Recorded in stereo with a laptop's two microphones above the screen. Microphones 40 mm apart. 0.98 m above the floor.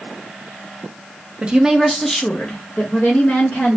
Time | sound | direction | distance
1.4 | a woman speaking | 25° right (ahead or behind) | 0.5 m